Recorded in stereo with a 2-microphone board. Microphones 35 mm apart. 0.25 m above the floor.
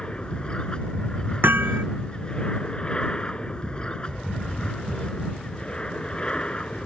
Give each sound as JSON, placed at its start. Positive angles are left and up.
{"t": 0.0, "sound": "an aircraft", "side_deg": 30}
{"t": 1.4, "sound": "hammering", "side_deg": -85}